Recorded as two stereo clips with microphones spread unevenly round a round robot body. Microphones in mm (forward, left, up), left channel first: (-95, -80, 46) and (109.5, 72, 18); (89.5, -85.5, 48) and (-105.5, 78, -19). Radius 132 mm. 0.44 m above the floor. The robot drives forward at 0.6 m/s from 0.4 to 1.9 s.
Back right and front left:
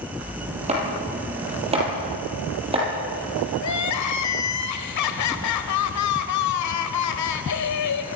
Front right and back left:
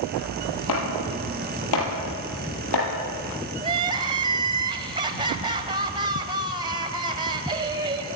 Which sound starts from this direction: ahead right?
Chopping, at 0.7 s.